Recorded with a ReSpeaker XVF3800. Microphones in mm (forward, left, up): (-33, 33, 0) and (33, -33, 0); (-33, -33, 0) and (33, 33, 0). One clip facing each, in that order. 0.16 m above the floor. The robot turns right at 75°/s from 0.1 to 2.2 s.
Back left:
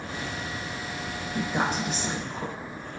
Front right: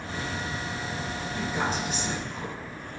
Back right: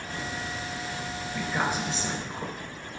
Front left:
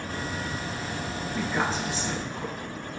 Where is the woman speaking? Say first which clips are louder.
Back left 3 dB, front left 1 dB; 120° left, 3 m; by 2.5 s 175° right, 3 m.